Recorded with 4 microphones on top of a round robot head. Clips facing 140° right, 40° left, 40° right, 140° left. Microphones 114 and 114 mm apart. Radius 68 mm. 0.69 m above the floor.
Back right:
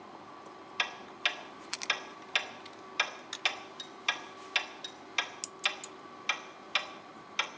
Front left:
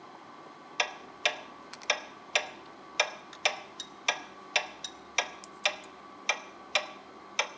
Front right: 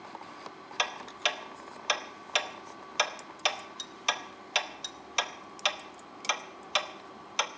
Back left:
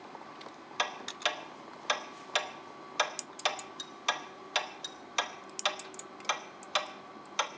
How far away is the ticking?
About 1.0 m.